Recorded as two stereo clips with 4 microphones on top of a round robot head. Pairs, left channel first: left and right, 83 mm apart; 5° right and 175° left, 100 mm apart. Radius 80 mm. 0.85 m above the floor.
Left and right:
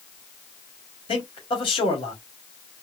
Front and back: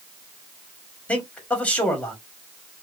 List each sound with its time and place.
1.1 s a man speaking: 70° left, 2 m